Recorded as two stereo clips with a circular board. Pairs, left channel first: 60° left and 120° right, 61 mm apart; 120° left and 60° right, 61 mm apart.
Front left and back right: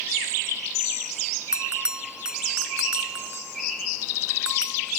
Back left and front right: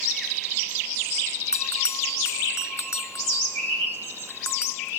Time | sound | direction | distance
1.5 | a bell | 160° left | ?